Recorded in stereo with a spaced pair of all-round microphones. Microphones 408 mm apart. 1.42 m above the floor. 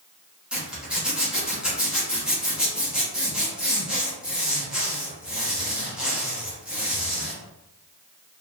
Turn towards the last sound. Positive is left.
turn(degrees=0)  # may be behind; listen again after turning